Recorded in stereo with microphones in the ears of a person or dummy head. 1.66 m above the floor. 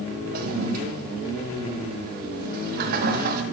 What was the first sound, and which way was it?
A toilet flushing, 50° right (ahead or behind).